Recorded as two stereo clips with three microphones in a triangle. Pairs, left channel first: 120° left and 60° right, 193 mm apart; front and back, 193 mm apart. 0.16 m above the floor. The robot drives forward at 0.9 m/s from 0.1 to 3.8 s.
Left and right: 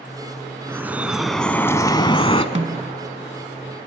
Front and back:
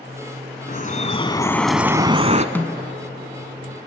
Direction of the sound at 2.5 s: 70° right.